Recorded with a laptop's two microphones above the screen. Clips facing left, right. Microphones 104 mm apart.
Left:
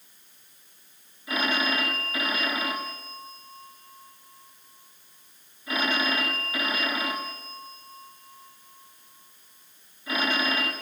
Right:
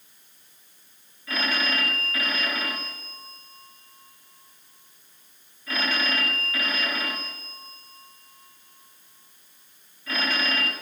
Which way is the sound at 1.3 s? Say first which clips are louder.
Left 1 dB; 15° left (ahead or behind).